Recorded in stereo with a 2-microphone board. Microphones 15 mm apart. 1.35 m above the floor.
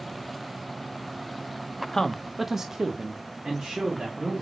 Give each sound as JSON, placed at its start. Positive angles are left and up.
{"t": 1.9, "sound": "a man speaking", "side_deg": 25, "distance_m": 0.7}